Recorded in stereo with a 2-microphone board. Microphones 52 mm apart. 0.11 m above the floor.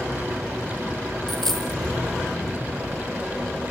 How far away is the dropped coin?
About 2 m.